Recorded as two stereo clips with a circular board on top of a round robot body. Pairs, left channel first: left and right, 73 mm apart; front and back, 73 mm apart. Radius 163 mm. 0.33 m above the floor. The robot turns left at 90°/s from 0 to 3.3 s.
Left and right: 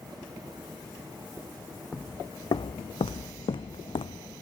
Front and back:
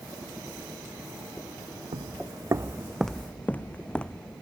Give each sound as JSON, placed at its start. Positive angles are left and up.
{"t": 1.9, "sound": "footsteps", "azimuth_deg": 170}